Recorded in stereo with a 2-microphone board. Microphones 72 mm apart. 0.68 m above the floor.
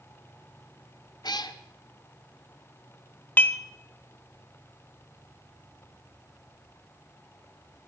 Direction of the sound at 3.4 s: 25° left (ahead or behind).